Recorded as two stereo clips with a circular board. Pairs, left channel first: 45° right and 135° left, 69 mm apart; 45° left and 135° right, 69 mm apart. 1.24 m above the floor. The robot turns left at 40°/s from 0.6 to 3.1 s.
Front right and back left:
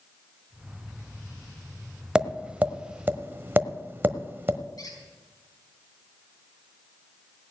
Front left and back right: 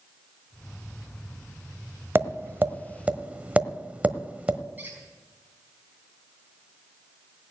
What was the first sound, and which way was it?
Tapping, 150° right.